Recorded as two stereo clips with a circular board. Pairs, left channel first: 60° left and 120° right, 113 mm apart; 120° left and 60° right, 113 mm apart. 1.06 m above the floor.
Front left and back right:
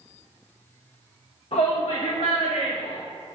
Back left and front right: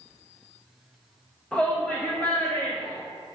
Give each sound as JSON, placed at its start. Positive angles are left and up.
{"t": 1.5, "sound": "a shout", "azimuth_deg": 40, "distance_m": 1.4}